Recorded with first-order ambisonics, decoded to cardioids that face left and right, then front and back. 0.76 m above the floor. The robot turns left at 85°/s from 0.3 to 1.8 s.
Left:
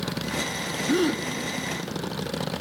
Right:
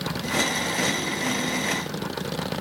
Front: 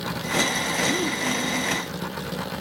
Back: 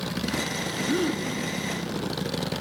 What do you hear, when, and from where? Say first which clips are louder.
0.9 s a gasp: left 2 dB, front 2 dB; 110° left, 1.6 m; by 1.2 s 80° left, 1.6 m